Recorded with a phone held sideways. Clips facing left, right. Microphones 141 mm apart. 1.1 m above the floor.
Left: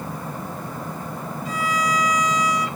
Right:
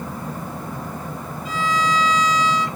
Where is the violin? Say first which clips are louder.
Right 2 dB; 60° left (ahead or behind), 3 m.